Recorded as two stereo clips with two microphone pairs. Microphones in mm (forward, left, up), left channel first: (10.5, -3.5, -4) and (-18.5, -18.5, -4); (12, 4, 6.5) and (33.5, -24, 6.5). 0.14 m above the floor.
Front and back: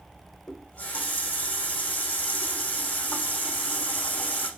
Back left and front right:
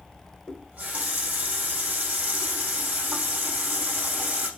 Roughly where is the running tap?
Ahead.